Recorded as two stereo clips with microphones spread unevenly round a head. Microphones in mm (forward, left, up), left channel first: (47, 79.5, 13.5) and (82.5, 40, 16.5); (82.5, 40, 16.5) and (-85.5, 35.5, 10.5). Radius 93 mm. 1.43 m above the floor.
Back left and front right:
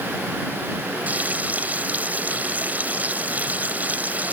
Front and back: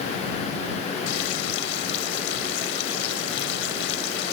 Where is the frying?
10° left.